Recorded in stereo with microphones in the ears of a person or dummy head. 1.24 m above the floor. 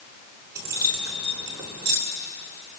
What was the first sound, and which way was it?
Keys jangling, 20° right (ahead or behind).